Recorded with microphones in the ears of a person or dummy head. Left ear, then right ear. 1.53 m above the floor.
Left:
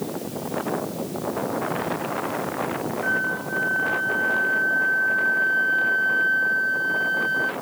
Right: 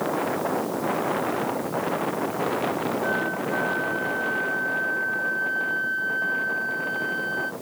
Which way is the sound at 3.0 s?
15° left (ahead or behind).